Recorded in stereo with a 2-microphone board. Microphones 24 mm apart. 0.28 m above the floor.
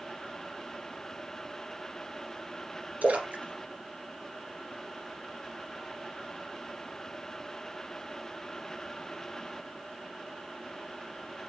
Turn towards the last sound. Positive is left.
turn(degrees=-80)